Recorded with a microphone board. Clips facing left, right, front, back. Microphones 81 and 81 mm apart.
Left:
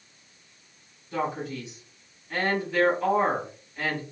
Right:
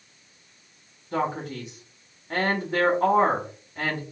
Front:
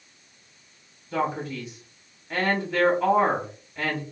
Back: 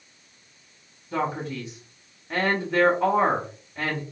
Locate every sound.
1.1 s a man speaking: 125° right, 1.5 m